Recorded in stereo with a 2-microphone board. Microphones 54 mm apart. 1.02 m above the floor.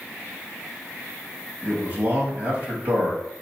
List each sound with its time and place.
1.6 s a man speaking: 45° right (ahead or behind), 2 m